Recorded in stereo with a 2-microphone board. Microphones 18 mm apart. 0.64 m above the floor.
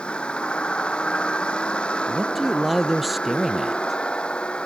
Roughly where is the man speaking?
Centre.